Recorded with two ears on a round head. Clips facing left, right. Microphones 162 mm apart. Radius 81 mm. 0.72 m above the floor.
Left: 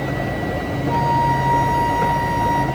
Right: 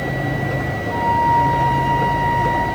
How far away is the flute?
About 2.0 m.